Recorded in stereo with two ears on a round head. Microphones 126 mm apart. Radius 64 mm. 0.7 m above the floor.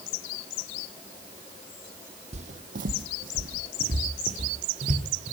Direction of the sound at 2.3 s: 50° right (ahead or behind).